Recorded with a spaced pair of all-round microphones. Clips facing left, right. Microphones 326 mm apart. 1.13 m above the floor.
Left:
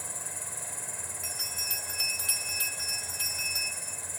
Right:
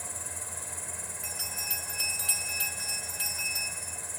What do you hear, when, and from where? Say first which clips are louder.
0.0 s an insect: even; centre (ahead or behind), 4 m
1.2 s a bell: right 1 dB; centre (ahead or behind), 1.7 m